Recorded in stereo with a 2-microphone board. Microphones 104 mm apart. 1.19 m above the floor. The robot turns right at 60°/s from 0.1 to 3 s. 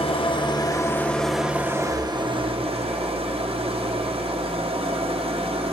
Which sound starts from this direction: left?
An engine running, at 0.0 s.